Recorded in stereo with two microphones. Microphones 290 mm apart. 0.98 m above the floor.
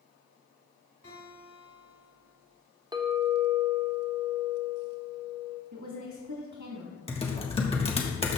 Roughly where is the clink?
Centre.